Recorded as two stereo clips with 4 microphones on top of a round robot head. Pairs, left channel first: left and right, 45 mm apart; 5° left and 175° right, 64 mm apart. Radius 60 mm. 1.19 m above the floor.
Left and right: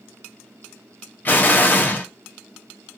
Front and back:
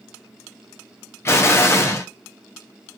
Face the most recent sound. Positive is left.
turn(degrees=50)